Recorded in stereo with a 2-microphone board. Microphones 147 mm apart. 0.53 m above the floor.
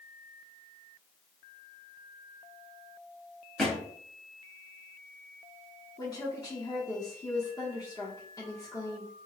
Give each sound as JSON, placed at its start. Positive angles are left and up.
{"t": 3.6, "sound": "a thud", "side_deg": 5, "distance_m": 1.5}
{"t": 6.0, "sound": "a woman speaking", "side_deg": 25, "distance_m": 1.0}